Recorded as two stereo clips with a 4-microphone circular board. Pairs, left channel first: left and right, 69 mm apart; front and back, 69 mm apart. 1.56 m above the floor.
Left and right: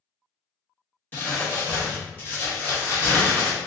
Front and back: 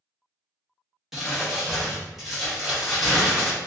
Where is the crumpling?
100° left, 1.2 m.